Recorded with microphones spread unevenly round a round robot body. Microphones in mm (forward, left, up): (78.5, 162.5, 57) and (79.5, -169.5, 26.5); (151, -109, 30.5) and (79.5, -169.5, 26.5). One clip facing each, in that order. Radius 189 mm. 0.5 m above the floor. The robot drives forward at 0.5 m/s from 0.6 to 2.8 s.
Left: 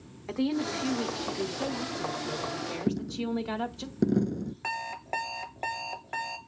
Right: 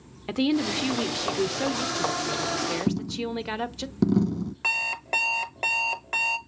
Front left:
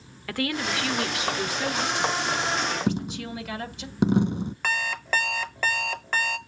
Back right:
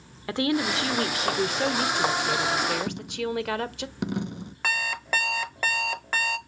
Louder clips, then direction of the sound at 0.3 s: Right 5 dB, back right 3 dB; 75° right.